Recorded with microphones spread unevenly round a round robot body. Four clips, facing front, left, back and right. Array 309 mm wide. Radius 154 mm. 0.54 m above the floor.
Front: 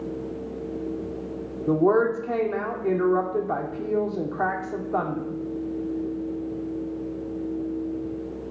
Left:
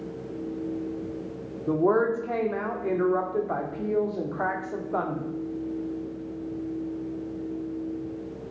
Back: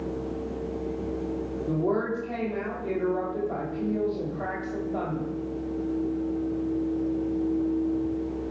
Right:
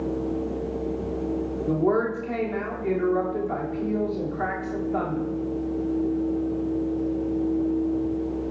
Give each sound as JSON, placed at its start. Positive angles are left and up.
{"t": 1.7, "sound": "a woman speaking", "azimuth_deg": -5, "distance_m": 1.7}